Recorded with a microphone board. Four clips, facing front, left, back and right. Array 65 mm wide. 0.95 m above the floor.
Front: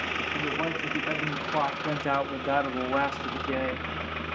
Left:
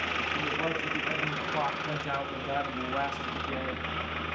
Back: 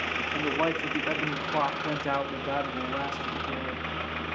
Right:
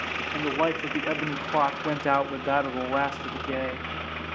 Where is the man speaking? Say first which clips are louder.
Right 5 dB, back 5 dB; 120° right, 2 m; by 3.9 s 45° right, 1.7 m.